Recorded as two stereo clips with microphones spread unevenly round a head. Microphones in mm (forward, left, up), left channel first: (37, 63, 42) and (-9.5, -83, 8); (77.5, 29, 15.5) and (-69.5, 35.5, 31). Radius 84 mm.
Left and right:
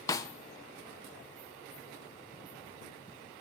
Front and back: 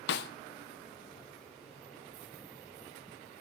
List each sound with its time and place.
0.1 s a snare drum: 5° left, 0.5 m